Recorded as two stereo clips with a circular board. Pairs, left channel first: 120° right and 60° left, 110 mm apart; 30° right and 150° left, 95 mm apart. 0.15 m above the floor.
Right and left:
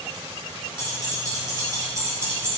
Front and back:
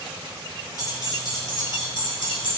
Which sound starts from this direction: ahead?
Keys jangling, at 0.8 s.